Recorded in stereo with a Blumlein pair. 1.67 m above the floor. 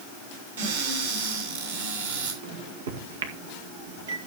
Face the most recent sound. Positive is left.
turn(degrees=-60)